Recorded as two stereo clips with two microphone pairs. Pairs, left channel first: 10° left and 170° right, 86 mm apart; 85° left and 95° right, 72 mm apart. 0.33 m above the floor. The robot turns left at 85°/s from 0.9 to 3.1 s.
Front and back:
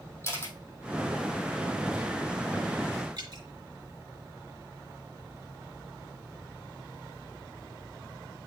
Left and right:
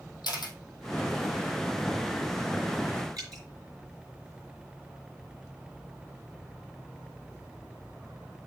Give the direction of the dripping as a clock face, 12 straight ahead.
4 o'clock.